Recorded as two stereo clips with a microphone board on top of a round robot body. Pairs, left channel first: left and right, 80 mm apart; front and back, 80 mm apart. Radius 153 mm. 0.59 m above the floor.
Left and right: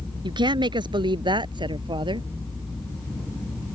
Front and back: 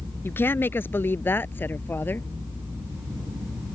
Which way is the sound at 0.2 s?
65° right.